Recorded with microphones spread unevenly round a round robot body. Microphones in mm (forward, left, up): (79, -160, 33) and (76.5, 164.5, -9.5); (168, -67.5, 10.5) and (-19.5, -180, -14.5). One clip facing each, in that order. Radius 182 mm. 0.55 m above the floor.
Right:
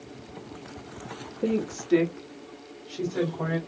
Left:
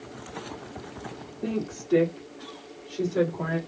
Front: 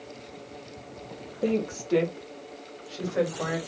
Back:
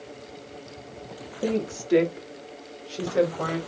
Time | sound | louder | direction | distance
1.4 | a woman speaking | right 3 dB, even | 75° right | 1.4 m